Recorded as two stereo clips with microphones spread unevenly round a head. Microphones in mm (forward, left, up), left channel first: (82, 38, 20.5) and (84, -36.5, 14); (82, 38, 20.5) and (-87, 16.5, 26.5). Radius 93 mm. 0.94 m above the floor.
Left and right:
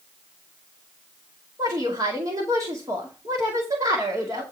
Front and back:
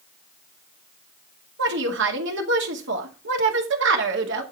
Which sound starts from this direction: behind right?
A woman speaking, at 1.6 s.